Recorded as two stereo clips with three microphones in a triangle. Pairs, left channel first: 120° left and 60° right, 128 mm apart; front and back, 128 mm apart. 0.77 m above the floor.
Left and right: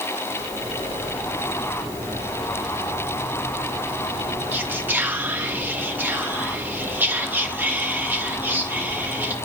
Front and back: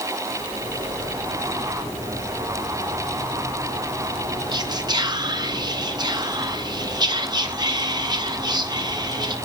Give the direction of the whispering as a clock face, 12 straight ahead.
4 o'clock.